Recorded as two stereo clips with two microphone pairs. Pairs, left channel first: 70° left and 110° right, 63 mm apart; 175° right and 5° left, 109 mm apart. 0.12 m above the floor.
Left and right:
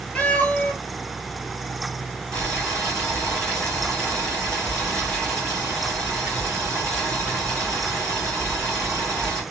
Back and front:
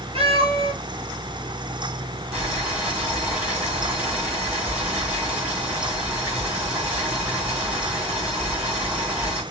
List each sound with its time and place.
0.1 s a cat meowing: straight ahead, 1.2 m
2.3 s boiling: 70° right, 2.5 m